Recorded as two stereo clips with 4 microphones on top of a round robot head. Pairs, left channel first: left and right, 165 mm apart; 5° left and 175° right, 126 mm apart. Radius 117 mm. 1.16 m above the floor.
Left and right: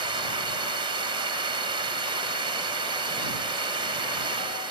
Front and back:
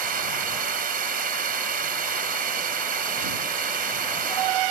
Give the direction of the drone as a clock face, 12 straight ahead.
5 o'clock.